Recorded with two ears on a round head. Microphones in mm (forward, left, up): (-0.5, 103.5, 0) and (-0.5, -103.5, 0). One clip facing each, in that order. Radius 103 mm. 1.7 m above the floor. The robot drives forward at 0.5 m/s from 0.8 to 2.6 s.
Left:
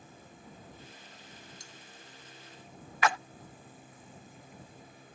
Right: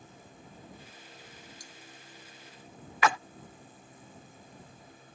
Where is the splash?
65° right (ahead or behind).